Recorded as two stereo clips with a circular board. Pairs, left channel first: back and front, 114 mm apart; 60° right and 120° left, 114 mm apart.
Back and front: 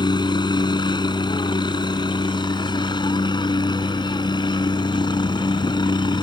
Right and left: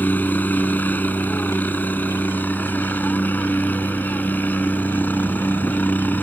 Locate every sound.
0.0 s a helicopter: 135° right